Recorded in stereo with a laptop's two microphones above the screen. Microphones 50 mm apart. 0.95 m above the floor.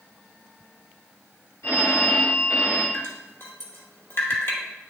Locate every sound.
1.6 s a phone ringing: 75° left (ahead or behind), 1.4 m
2.9 s dripping: 50° left (ahead or behind), 1.0 m